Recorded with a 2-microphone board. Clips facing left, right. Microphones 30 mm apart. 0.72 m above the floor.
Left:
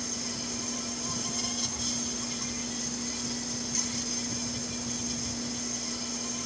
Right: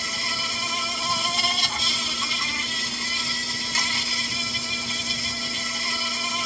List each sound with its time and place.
0.0 s an insect: 60° right (ahead or behind)